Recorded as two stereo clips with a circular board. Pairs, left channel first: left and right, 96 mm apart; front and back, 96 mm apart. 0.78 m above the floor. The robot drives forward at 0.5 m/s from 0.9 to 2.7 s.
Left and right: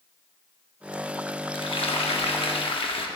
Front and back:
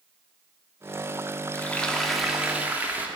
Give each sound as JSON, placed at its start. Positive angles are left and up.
{"t": 1.5, "sound": "frying", "azimuth_deg": 70, "distance_m": 0.9}